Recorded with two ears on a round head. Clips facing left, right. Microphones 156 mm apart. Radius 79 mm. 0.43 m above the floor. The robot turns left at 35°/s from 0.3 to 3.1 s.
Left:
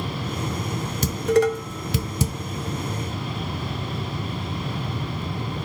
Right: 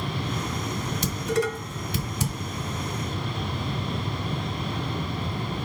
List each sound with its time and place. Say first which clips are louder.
1.0 s dishes clattering: left 8 dB; 40° left (ahead or behind), 1.3 m; by 2.3 s 65° left (ahead or behind), 1.3 m